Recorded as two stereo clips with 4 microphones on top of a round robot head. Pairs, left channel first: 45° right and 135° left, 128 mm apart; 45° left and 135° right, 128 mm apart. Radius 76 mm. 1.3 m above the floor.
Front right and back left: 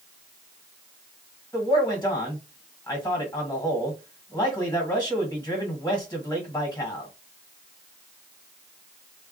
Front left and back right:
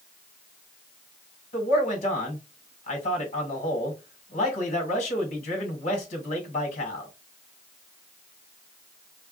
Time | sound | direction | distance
1.5 | a man speaking | 25° left | 1.5 m